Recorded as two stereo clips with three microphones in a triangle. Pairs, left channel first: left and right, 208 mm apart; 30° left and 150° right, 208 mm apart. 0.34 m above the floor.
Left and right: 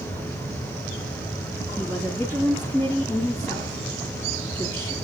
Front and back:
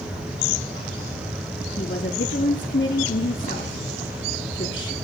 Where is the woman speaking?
15° left, 3.5 m.